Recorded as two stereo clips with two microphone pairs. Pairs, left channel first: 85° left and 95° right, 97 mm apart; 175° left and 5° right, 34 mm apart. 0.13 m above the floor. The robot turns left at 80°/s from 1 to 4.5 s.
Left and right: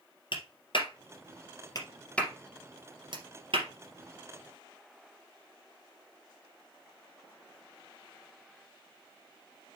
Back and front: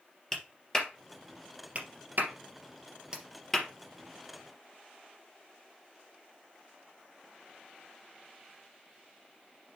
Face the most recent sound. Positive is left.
turn(degrees=180)